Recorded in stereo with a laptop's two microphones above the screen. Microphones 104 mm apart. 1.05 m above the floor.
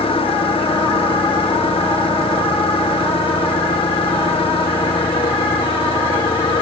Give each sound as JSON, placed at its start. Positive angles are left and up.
{"t": 0.0, "sound": "an engine running", "side_deg": 60}